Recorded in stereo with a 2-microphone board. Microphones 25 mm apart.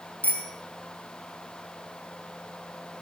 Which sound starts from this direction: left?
A bicycle bell, at 0.2 s.